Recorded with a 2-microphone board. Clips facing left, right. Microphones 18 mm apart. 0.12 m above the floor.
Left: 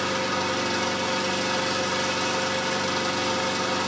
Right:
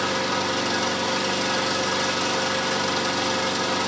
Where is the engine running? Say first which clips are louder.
Right 2 dB; 20° right (ahead or behind), 1.0 m.